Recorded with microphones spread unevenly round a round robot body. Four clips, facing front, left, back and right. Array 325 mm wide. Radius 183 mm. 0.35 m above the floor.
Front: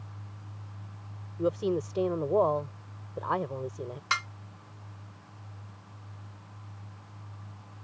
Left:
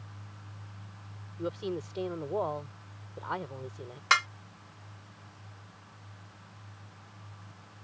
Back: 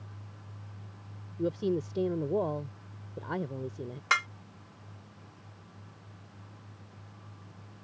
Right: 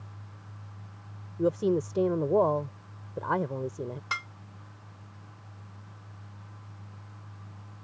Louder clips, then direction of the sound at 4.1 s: Left 14 dB, back 2 dB; 140° left.